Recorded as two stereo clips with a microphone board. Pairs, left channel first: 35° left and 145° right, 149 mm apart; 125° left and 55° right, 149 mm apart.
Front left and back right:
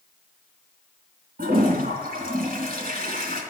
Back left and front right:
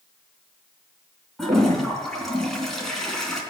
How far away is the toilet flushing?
About 3 m.